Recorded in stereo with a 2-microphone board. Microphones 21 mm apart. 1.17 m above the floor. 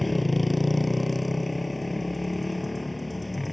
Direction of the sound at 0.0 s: Centre (ahead or behind).